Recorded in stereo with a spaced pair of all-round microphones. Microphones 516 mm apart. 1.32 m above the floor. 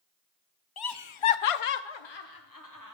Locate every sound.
0.8 s laughter: 45° left (ahead or behind), 0.6 m; by 2.9 s 35° left (ahead or behind), 1.0 m